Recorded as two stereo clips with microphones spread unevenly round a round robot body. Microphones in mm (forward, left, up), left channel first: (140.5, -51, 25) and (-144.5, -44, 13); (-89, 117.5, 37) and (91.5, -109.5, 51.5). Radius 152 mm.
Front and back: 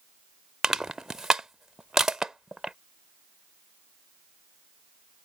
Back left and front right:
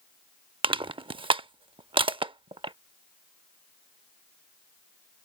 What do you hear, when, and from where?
0.6 s crushing: 100° right